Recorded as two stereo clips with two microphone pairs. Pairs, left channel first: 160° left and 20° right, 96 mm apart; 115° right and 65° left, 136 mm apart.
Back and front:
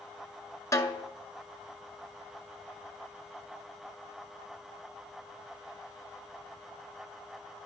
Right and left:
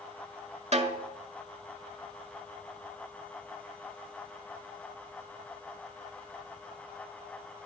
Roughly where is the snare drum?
Left.